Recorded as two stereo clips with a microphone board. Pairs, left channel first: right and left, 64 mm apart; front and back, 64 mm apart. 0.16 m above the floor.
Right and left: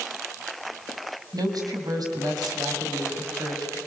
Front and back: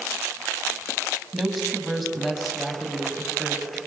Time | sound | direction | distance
1.3 | a woman speaking | 90° left | 5.5 m